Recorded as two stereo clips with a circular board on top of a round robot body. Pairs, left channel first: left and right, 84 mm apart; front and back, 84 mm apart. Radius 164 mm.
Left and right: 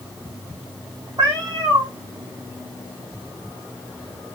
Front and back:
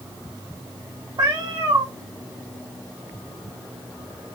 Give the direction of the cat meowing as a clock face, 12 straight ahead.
4 o'clock.